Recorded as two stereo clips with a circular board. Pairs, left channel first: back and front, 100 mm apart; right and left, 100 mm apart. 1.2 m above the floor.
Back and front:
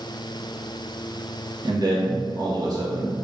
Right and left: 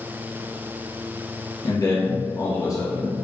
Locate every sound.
1.6 s a man speaking: 40° right, 1.3 m